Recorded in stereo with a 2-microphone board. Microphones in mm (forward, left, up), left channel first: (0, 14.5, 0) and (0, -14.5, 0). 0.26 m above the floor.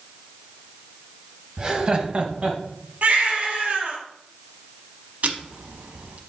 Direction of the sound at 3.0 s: 70° right (ahead or behind).